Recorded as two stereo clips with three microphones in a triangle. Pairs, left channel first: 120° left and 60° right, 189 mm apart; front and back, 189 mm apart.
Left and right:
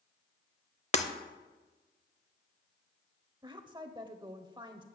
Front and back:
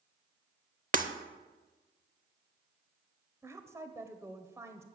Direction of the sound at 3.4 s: 115° right.